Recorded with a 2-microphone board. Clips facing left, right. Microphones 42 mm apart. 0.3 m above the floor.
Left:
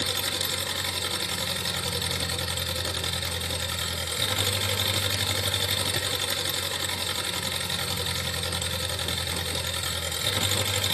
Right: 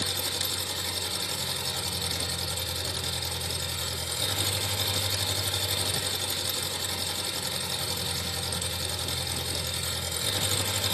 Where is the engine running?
50° left (ahead or behind), 1.0 m.